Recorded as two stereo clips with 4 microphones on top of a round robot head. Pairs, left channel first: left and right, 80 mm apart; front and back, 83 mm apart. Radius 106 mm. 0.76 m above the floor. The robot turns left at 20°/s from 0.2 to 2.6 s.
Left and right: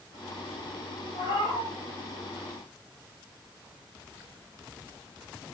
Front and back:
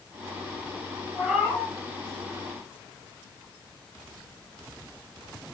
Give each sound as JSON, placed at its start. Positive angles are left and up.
{"t": 1.1, "sound": "a cat meowing", "azimuth_deg": 100, "distance_m": 2.5}